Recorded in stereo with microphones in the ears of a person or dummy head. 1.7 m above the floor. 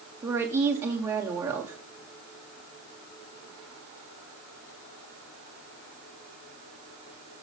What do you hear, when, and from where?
0.2 s a woman speaking: 15° right (ahead or behind), 0.6 m